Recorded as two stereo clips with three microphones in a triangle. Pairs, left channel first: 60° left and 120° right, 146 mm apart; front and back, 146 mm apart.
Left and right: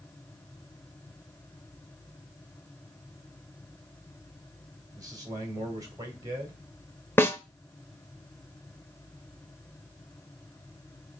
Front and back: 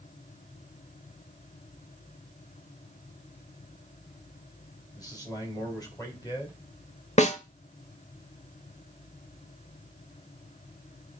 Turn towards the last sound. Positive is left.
turn(degrees=-10)